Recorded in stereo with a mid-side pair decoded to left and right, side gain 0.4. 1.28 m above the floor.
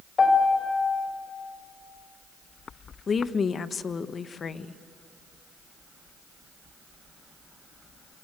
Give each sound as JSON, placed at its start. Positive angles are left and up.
{"t": 0.2, "sound": "a piano", "azimuth_deg": 40, "distance_m": 6.0}
{"t": 3.1, "sound": "a woman speaking", "azimuth_deg": 45, "distance_m": 1.3}